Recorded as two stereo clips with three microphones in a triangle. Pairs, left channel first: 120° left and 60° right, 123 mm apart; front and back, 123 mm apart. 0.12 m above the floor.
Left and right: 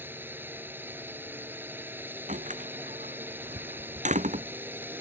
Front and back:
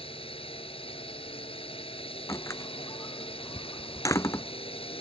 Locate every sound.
0.0 s a drone: 10° left
2.3 s a door slam: 65° right